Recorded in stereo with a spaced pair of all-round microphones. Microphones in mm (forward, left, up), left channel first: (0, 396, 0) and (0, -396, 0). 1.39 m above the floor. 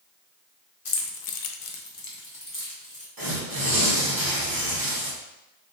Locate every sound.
0.8 s keys jangling: 45° left (ahead or behind), 0.7 m; by 3.1 s 10° left (ahead or behind), 1.4 m
3.2 s tearing paper: 30° right (ahead or behind), 0.9 m